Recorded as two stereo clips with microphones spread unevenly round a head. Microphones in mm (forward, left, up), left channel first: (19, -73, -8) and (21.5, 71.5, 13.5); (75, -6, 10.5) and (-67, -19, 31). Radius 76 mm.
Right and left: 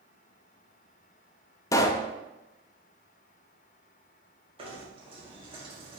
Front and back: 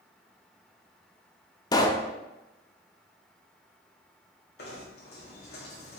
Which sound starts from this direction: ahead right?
A pop, at 1.7 s.